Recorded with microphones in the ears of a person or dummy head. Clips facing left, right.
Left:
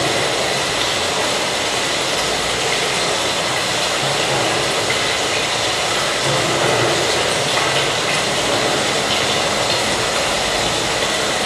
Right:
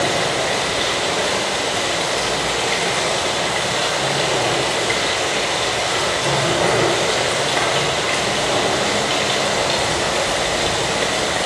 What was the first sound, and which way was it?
Running water, centre (ahead or behind).